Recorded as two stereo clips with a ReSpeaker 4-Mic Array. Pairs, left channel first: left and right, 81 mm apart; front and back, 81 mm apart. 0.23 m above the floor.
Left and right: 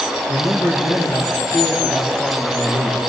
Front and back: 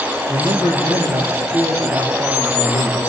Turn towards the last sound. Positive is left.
turn(degrees=135)